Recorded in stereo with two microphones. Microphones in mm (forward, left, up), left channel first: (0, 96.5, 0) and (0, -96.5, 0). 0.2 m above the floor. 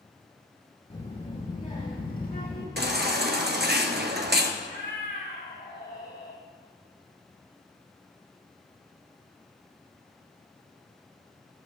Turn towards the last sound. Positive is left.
turn(degrees=60)  # may be behind; listen again after turning